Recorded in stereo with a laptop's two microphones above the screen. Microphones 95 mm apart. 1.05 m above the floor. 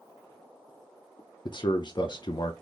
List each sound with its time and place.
1.4 s a man speaking: 50° left (ahead or behind), 0.5 m